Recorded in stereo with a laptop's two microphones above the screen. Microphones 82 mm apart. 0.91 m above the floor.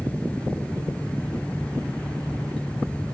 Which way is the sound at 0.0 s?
15° left (ahead or behind).